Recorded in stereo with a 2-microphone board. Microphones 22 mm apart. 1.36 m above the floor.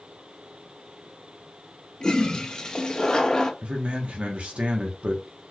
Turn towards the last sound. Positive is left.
turn(degrees=-70)  # may be behind; listen again after turning